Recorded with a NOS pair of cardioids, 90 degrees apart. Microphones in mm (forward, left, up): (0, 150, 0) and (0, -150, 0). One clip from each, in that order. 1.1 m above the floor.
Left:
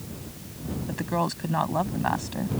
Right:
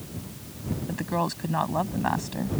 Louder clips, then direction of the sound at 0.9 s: Left 1 dB; 5° left.